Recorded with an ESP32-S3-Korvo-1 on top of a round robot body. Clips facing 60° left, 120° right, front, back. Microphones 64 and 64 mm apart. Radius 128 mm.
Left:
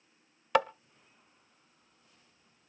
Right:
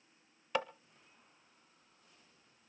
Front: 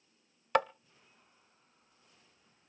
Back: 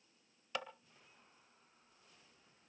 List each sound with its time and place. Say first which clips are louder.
0.6 s tapping: left 9 dB, front 15 dB; 40° left, 0.5 m